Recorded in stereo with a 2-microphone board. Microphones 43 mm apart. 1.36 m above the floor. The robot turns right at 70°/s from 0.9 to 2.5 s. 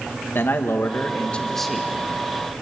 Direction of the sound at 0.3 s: 120° left.